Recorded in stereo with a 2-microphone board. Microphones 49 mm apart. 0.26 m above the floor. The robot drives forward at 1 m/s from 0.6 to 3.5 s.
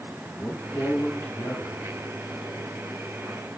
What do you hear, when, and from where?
0.3 s a man speaking: 65° left (ahead or behind), 4 m; by 1.8 s 75° left (ahead or behind), 3.5 m